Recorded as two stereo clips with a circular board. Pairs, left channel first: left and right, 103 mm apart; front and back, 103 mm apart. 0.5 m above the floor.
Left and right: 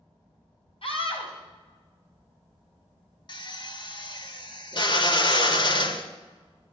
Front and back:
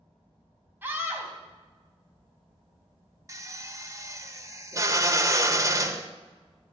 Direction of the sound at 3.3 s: 125° left.